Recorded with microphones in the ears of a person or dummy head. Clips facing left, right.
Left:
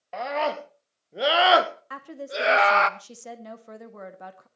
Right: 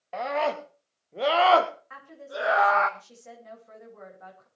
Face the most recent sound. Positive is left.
turn(degrees=75)  # may be behind; listen again after turning